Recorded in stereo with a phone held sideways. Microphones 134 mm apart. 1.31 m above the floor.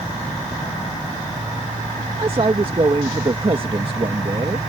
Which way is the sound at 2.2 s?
40° right (ahead or behind).